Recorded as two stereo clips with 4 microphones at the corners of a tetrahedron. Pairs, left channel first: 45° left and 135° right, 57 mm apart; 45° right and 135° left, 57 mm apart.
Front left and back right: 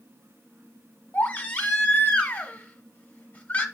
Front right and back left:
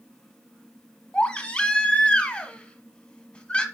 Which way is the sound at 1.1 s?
10° left.